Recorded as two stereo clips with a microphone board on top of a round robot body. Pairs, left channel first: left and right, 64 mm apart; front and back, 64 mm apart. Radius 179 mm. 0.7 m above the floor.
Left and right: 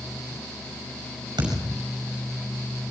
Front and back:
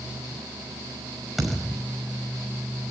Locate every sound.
1.4 s a thud: 90° right, 5.5 m